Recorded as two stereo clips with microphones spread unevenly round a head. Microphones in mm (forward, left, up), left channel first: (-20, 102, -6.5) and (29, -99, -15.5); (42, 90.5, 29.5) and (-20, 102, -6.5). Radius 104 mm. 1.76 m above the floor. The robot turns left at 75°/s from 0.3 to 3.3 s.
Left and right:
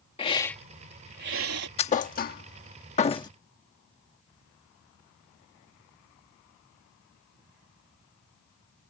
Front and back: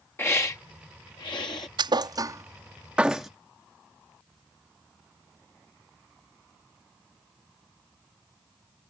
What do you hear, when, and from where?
0.2 s a hiss: 35° left; by 1.7 s 65° right
1.8 s a thud: 155° left; by 3.3 s 40° left